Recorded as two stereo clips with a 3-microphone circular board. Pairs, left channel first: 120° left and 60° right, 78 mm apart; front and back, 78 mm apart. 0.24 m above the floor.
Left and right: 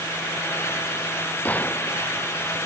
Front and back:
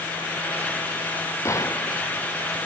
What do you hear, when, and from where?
1.4 s a gunshot: 50° left